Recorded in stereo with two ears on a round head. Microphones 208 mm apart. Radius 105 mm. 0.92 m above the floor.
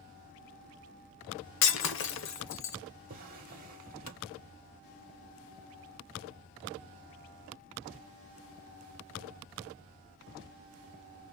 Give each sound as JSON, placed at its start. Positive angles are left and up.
{"t": 1.6, "sound": "breaking glass", "side_deg": 55, "distance_m": 0.9}
{"t": 3.1, "sound": "a drawer", "side_deg": -35, "distance_m": 1.1}